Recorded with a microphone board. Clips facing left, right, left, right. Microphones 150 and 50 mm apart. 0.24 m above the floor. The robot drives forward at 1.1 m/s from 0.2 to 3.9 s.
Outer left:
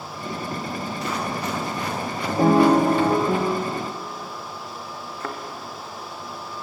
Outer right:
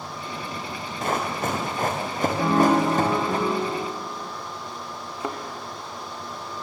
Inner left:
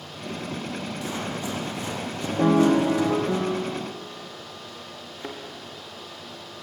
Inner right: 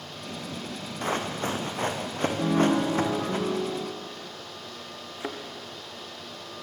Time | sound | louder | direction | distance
1.0 | running footsteps | outer right 4 dB, inner right 5 dB | 50° right (ahead or behind) | 5 m
2.4 | a piano | outer left 4 dB, inner left 6 dB | 35° left (ahead or behind) | 4 m
5.2 | a thud | outer right 2 dB, inner right 2 dB | 15° right (ahead or behind) | 3 m